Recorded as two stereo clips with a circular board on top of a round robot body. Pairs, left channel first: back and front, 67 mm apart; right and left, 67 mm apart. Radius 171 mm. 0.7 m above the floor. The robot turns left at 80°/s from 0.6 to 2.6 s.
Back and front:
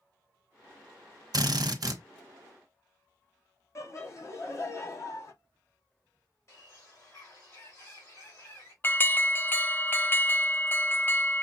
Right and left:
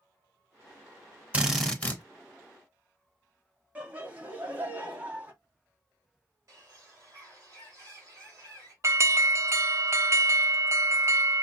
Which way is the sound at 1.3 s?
15° left.